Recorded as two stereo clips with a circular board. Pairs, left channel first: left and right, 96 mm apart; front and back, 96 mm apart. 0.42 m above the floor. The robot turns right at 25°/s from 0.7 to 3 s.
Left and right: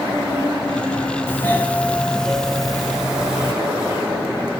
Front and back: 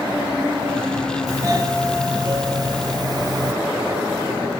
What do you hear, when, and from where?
1.3 s a doorbell: 145° left, 1.9 m; by 3.5 s 170° right, 1.9 m